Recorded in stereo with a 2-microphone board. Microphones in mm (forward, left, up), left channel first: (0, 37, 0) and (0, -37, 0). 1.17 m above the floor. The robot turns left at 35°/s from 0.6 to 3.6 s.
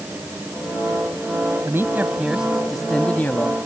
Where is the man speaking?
145° right; by 3.5 s 150° left.